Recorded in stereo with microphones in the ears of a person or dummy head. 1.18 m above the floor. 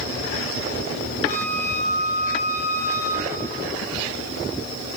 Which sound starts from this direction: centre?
A flute, at 1.2 s.